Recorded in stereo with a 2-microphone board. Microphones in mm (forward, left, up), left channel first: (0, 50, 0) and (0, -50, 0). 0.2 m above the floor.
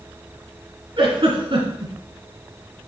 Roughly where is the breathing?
No breathing in this recording.